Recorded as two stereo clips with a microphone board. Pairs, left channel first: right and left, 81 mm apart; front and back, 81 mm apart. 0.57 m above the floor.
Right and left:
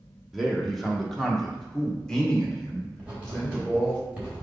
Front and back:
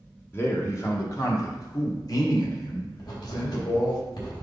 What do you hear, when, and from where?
0.3 s a man speaking: 5° left, 1.3 m; by 4.0 s 15° right, 2.5 m
3.0 s writing: 20° left, 3 m